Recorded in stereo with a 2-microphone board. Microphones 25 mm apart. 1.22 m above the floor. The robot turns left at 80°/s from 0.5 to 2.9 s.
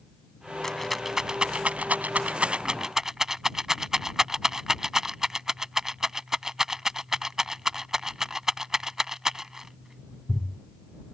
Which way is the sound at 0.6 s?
20° left (ahead or behind).